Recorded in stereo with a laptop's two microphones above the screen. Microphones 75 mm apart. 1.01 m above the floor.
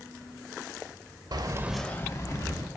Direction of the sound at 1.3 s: 65° right (ahead or behind).